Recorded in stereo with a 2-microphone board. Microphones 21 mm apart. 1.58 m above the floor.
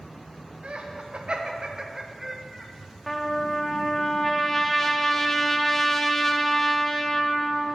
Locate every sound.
0.6 s laughter: 75° right (ahead or behind), 1.5 m; by 2.7 s centre (ahead or behind), 1.4 m
3.1 s a trumpet: 20° left (ahead or behind), 0.8 m